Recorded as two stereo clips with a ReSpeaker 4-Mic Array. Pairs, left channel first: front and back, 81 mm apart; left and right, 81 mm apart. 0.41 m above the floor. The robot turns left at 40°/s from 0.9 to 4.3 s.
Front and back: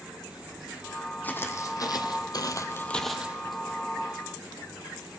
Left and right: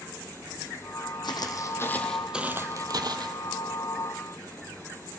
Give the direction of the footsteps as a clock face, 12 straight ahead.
10 o'clock.